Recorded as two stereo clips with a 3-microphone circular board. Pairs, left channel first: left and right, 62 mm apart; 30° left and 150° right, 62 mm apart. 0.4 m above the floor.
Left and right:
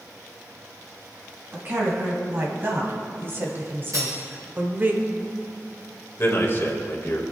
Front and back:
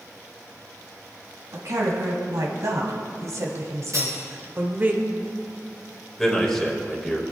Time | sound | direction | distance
1.5 | a woman speaking | 140° right | 3.5 m
3.9 | cutlery clinking | 120° right | 4.5 m
6.2 | a man speaking | 110° left | 2.0 m